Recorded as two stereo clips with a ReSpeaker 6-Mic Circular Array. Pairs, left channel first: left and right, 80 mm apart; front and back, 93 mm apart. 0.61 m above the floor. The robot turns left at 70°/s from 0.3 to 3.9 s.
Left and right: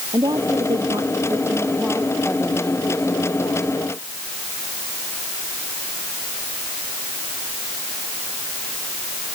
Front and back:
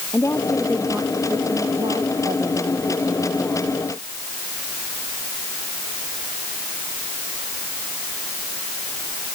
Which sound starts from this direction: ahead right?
A woman speaking, at 0.1 s.